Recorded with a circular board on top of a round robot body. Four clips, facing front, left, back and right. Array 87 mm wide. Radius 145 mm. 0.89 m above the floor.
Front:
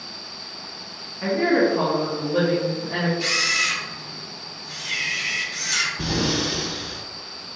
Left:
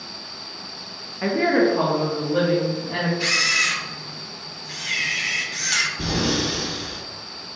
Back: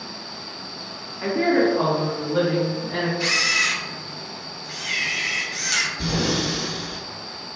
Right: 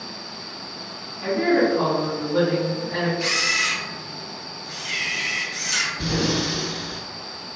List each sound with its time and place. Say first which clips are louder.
1.2 s a woman speaking: left 1 dB, even; 100° left, 0.8 m; by 3.1 s 10° left, 1.6 m
3.2 s a camera shutter: left 1 dB, back 1 dB; 125° left, 0.7 m
6.0 s breathing: right 1 dB, even; 30° left, 1.9 m